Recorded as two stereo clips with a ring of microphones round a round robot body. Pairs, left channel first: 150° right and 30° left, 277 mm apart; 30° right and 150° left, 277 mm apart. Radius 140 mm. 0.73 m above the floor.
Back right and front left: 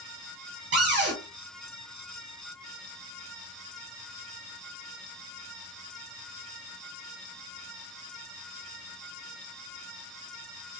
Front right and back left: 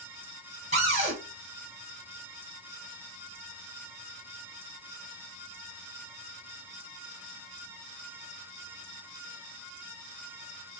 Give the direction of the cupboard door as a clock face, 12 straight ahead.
9 o'clock.